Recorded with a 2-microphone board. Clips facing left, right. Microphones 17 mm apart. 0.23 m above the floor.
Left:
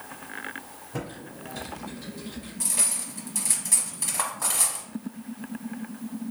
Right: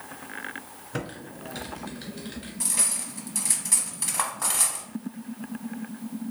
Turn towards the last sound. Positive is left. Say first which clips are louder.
# even
turn(degrees=-10)  # may be behind; listen again after turning